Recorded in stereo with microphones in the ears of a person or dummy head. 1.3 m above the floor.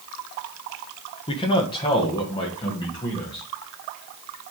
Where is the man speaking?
25° left (ahead or behind), 0.9 m; by 3.5 s 20° left (ahead or behind), 2.5 m.